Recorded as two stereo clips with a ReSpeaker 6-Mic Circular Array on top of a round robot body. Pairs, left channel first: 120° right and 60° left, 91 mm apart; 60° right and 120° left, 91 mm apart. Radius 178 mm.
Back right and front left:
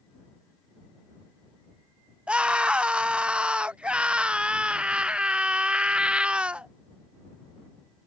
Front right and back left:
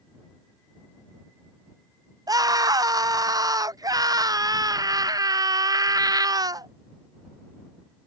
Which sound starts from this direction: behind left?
A scream, at 2.3 s.